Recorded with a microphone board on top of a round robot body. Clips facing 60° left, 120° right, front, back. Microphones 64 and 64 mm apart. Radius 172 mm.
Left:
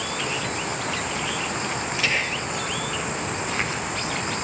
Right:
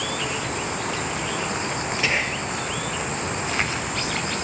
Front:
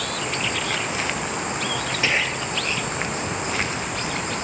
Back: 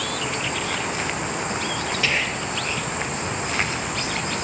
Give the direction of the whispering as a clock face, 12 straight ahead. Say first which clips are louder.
Right 1 dB, front 2 dB; 2 o'clock.